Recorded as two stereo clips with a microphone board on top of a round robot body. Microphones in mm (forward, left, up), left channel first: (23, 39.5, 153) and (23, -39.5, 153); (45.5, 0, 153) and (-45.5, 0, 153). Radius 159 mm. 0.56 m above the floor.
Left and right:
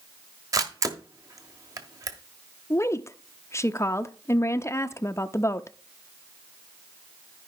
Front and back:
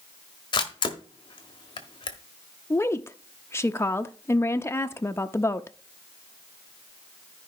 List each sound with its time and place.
0.5 s a camera shutter: 40° right, 1.3 m
2.7 s a woman speaking: 50° left, 0.8 m